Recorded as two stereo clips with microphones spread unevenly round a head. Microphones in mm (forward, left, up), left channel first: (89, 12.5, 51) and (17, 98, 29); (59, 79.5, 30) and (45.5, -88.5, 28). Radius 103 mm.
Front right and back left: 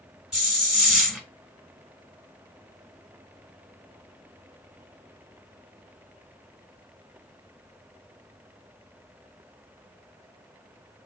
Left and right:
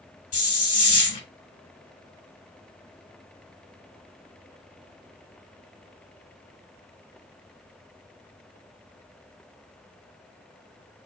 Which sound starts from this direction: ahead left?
A hiss, at 0.3 s.